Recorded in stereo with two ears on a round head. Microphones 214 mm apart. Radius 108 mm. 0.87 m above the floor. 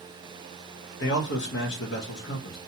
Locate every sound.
1.0 s a man speaking: 50° left (ahead or behind), 0.9 m